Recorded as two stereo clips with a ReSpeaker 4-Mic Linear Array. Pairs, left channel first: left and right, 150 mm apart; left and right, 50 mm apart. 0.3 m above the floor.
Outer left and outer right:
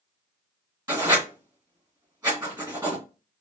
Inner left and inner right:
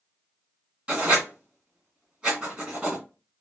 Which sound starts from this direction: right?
Writing, at 0.9 s.